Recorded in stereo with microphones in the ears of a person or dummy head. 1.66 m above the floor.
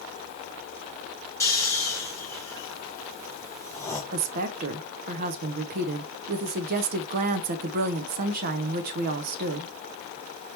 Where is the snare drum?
I don't hear a snare drum.